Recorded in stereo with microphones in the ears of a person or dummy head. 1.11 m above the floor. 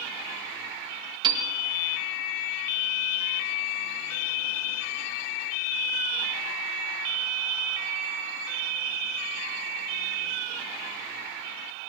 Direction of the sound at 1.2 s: 25° right (ahead or behind).